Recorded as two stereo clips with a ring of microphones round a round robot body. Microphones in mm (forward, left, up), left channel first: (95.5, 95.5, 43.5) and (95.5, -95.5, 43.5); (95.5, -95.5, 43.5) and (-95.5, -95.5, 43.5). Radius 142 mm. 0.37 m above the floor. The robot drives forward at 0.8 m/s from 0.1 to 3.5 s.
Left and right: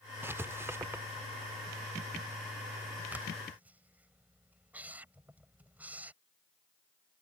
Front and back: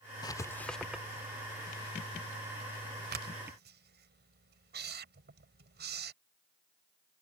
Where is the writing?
30° right; by 6.1 s 175° right.